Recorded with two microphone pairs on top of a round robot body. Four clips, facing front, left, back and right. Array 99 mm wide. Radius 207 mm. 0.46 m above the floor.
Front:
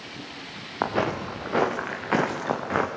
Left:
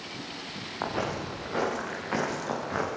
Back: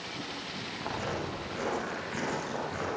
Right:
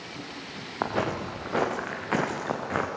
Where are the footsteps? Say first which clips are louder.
Right 3 dB, front 10 dB; 25° right, 4.5 m; by 2.9 s 15° right, 3.5 m.